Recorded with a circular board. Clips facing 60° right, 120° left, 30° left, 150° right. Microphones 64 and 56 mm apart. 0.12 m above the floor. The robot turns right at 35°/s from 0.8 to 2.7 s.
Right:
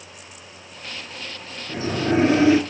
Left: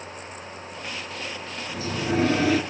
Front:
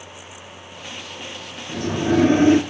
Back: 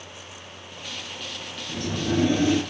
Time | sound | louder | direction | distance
1.7 | a sliding door | right 5 dB, front 6 dB | 30° right | 0.7 m